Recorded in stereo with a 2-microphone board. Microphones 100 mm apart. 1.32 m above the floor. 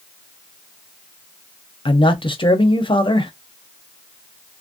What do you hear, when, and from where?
1.9 s a man speaking: 55° left (ahead or behind), 0.8 m